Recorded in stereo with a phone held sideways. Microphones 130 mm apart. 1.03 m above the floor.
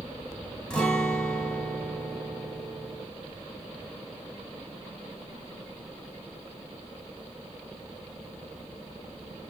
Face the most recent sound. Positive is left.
turn(degrees=10)  # may be behind; listen again after turning